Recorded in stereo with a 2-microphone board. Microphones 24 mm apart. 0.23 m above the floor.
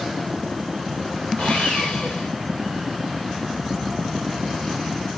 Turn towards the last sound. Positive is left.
turn(degrees=80)